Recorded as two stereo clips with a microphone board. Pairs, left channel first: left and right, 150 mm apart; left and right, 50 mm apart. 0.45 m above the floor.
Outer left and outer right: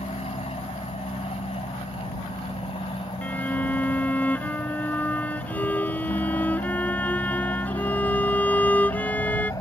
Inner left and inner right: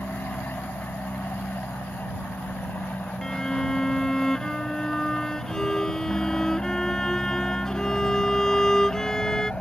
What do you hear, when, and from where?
0.0 s an aircraft: 45° left (ahead or behind); by 9.6 s 25° left (ahead or behind)
3.2 s a violin: 10° left (ahead or behind)